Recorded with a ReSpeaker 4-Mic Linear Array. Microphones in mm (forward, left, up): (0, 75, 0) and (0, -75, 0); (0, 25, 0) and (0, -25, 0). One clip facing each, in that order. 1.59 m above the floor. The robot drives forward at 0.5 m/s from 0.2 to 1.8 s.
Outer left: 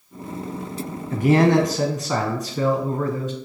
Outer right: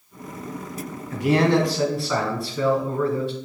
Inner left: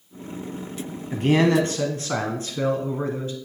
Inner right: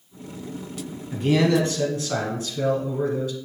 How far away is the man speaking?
About 0.9 m.